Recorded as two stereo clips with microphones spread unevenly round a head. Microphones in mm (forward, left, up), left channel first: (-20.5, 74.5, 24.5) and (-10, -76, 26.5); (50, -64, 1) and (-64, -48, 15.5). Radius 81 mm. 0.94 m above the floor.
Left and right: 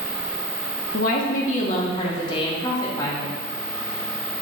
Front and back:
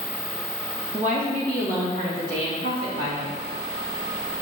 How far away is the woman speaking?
About 1.3 m.